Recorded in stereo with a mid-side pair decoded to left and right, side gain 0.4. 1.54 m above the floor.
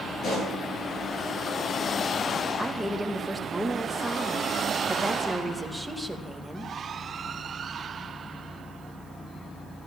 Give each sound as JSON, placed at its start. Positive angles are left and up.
{"t": 0.2, "sound": "a pop", "azimuth_deg": 65, "distance_m": 10.0}
{"t": 2.6, "sound": "a woman speaking", "azimuth_deg": -10, "distance_m": 2.5}